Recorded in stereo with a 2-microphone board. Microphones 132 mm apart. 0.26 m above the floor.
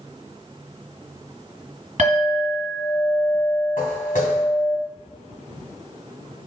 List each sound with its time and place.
2.0 s a clink: 65° right (ahead or behind), 1.5 m
3.8 s footsteps: 75° left (ahead or behind), 1.2 m